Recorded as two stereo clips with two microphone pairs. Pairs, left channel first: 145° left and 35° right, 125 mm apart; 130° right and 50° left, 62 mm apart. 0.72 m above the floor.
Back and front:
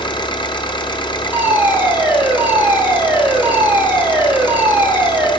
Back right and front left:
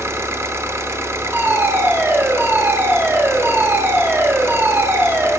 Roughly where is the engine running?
Left.